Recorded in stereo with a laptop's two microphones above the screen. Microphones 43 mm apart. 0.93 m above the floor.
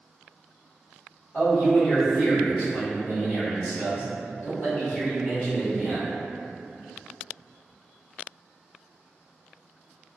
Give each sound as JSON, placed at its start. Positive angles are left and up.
{"t": 1.3, "sound": "a man speaking", "side_deg": 20, "distance_m": 1.4}